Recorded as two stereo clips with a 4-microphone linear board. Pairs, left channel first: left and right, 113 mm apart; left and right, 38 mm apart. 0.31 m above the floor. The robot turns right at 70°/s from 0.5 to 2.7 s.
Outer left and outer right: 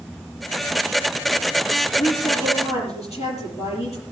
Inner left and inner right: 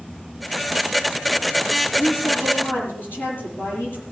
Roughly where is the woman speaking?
Ahead left.